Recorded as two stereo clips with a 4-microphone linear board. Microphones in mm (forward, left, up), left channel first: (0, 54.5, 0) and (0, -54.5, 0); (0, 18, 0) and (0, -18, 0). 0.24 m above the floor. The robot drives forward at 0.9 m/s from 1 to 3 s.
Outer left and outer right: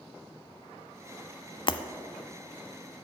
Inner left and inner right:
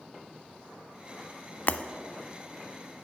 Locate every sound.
1.7 s breaking glass: 50° left (ahead or behind), 0.7 m; by 1.8 s 45° left (ahead or behind), 0.7 m